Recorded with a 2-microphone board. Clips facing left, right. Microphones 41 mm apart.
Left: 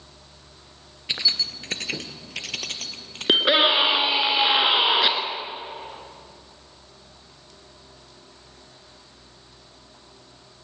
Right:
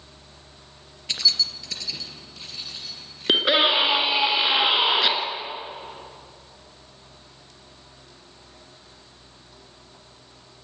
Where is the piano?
No piano in this recording.